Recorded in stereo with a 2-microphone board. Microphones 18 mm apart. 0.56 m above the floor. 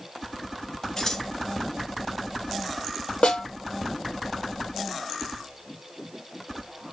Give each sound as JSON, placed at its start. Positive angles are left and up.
{"t": 1.0, "sound": "scissors", "side_deg": 35, "distance_m": 2.5}
{"t": 3.2, "sound": "a snare drum", "side_deg": 85, "distance_m": 4.0}